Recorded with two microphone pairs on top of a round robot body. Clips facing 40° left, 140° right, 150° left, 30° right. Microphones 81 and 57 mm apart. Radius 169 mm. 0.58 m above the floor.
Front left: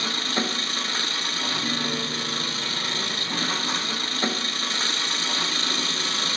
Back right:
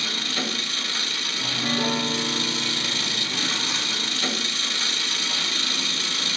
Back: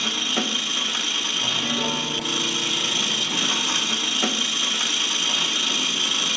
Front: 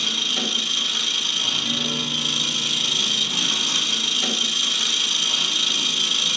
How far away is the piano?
About 1.2 m.